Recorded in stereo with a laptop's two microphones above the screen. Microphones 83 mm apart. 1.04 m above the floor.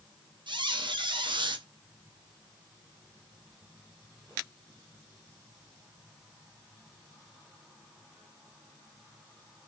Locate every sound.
0.5 s a squeak: 75° right (ahead or behind), 0.6 m